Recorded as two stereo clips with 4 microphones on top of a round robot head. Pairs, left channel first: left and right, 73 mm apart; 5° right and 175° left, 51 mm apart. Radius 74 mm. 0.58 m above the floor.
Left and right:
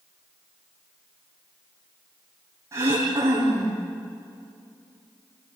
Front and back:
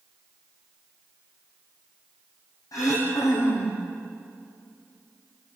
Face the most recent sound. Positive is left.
turn(degrees=-30)